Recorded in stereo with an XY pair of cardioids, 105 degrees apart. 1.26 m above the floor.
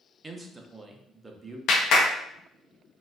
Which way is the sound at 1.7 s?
70° left.